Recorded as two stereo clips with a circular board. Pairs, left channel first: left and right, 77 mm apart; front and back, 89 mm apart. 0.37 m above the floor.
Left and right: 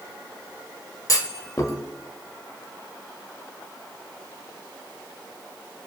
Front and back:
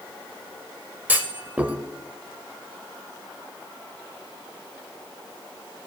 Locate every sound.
1.1 s a clunk: 115° left, 0.9 m